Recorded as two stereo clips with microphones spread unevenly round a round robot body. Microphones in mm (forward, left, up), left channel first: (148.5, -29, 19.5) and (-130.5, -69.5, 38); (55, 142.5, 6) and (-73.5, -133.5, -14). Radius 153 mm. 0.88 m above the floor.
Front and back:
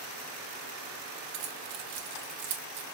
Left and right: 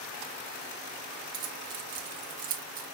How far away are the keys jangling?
About 1.0 m.